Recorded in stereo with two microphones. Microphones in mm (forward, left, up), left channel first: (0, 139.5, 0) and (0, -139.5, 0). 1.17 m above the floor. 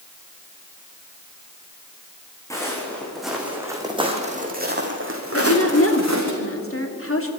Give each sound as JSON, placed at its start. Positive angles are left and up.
{"t": 2.5, "sound": "footsteps", "side_deg": 10, "distance_m": 5.0}
{"t": 5.3, "sound": "a woman speaking", "side_deg": 50, "distance_m": 2.5}